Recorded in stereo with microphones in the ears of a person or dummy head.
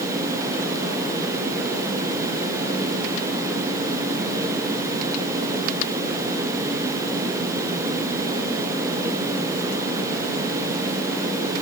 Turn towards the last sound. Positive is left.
No sound to turn to.